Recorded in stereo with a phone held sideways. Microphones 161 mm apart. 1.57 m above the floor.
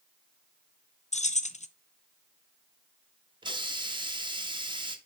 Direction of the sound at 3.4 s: 30° right (ahead or behind).